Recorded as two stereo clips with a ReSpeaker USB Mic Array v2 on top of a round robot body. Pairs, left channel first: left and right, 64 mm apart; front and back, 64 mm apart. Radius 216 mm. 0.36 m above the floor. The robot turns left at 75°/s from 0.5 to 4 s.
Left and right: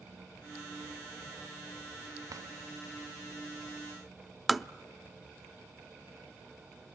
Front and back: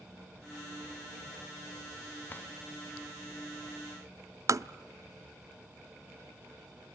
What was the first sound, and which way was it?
A drawer, 55° right.